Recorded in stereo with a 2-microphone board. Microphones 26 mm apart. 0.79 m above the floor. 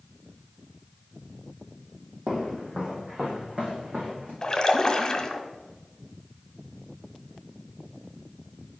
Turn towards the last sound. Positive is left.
turn(degrees=30)  # may be behind; listen again after turning